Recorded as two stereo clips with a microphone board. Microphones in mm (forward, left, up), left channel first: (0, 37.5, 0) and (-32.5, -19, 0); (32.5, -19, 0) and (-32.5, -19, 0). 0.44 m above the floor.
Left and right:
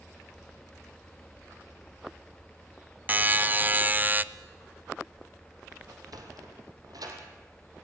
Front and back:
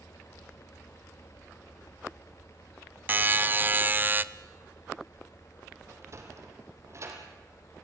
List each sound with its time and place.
3.1 s a buzzer: 155° right, 0.6 m
5.9 s a sliding door: 135° right, 3.5 m